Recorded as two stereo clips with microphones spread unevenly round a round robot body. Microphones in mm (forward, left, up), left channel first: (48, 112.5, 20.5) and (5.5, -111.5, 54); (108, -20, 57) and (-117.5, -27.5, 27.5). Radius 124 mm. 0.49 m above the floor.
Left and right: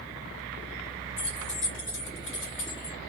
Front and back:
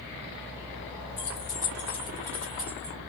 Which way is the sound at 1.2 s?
40° left.